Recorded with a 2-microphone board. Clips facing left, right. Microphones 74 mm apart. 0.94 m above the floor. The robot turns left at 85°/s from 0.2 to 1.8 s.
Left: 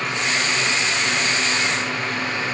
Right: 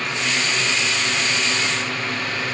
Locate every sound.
Only background noise.